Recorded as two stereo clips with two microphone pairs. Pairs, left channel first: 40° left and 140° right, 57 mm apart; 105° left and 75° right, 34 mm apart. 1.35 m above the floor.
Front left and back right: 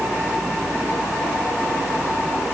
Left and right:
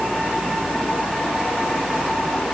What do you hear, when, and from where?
Only background noise.